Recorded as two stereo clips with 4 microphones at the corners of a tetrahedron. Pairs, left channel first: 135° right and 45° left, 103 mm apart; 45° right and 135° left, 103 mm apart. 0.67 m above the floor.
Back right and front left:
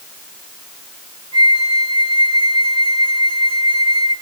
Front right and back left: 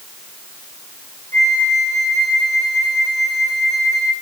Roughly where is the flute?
Ahead.